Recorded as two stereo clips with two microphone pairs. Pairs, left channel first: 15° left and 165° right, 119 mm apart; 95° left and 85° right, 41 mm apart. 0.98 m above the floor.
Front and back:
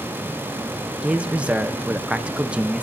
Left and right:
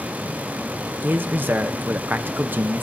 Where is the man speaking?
85° right, 0.7 m.